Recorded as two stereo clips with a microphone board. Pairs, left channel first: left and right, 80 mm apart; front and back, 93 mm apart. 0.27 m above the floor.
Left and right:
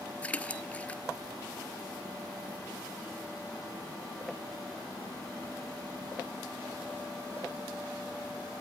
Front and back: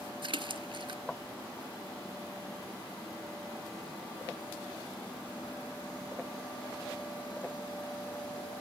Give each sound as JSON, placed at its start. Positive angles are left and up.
{"t": 0.2, "sound": "a splash", "azimuth_deg": 165, "distance_m": 0.7}